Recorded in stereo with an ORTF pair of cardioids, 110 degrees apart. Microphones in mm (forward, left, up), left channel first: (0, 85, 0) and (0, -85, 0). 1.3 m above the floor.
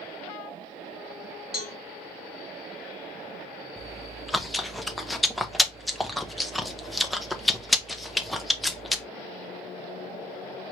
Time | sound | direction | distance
1.5 | a cowbell | straight ahead | 1.5 m
3.8 | chewing | straight ahead | 0.5 m